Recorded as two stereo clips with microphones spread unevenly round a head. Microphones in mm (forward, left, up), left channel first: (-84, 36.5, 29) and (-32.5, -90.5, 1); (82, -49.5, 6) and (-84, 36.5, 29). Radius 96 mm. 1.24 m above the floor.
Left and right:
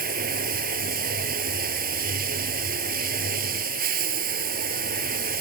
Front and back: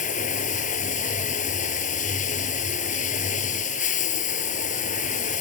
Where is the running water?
80° right.